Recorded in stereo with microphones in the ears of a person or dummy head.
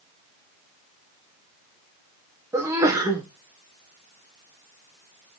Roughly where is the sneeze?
Centre.